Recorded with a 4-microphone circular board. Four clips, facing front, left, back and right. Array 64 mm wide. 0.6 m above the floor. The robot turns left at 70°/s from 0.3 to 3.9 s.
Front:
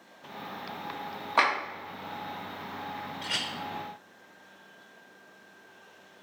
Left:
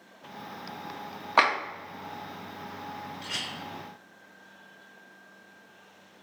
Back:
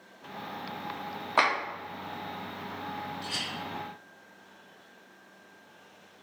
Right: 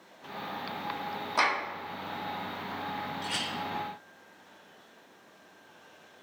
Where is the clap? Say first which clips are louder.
Left 5 dB, even; 100° left, 1.1 m; by 1.5 s 85° left, 1.1 m.